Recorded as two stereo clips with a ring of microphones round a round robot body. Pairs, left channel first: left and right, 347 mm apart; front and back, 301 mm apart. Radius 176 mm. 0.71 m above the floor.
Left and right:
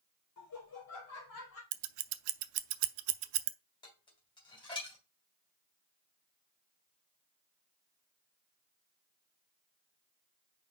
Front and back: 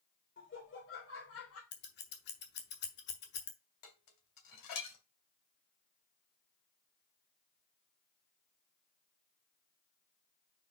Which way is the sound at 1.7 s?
60° right.